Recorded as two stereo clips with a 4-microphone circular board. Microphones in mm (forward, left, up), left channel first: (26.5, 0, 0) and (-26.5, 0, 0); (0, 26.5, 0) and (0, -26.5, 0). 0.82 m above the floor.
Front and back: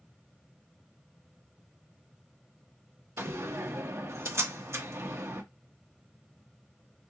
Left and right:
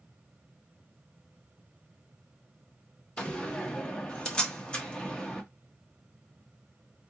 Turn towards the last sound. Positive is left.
turn(degrees=160)